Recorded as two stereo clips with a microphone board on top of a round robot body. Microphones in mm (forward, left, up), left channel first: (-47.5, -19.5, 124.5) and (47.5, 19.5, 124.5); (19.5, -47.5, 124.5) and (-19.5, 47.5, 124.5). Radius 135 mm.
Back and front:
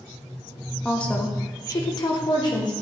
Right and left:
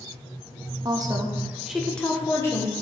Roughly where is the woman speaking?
Behind left.